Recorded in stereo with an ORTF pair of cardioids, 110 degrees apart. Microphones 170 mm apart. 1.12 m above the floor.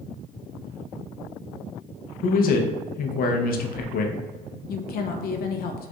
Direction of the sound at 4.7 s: 65° left.